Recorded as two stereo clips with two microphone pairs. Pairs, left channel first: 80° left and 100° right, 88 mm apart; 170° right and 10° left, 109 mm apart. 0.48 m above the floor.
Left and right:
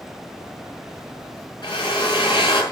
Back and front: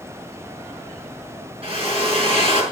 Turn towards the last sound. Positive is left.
turn(degrees=45)